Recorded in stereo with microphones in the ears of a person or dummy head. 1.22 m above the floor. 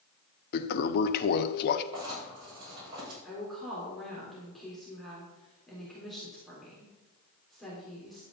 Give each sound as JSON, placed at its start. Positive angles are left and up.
{"t": 0.5, "sound": "a toilet flushing", "side_deg": 55, "distance_m": 0.8}
{"t": 1.9, "sound": "writing", "side_deg": -25, "distance_m": 5.5}
{"t": 3.2, "sound": "a woman speaking", "side_deg": 0, "distance_m": 3.5}